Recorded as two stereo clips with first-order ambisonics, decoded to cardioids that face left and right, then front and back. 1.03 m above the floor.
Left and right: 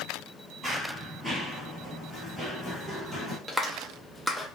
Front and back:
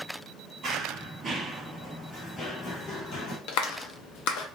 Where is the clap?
5° right, 0.6 m.